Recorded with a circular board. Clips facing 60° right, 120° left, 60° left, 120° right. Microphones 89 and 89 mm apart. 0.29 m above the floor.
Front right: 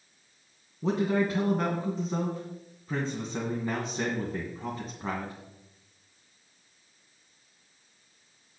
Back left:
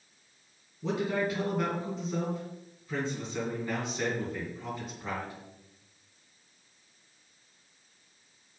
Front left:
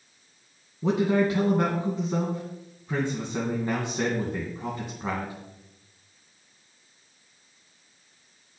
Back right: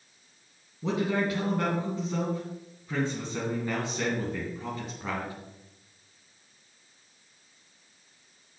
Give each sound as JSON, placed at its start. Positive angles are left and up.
{"t": 0.8, "sound": "a man speaking", "azimuth_deg": -10, "distance_m": 2.5}